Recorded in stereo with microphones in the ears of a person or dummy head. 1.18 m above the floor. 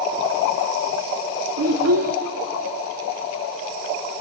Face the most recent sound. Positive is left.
turn(degrees=-75)  # may be behind; listen again after turning